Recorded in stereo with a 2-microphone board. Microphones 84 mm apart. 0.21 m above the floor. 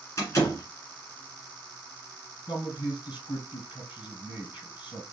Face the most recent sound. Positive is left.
turn(degrees=60)  # may be behind; listen again after turning